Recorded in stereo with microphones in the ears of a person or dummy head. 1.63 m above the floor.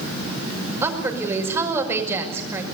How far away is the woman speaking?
About 5.5 m.